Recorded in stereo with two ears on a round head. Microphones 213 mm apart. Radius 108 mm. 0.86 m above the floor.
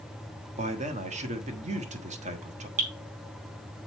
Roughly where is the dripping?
Right.